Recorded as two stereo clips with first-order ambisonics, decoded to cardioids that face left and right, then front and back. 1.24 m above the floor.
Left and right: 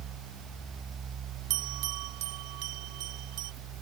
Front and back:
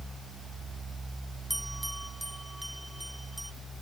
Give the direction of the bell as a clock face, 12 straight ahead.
3 o'clock.